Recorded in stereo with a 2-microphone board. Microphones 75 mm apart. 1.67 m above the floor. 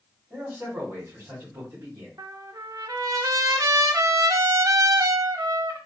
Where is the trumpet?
60° right (ahead or behind), 0.5 m.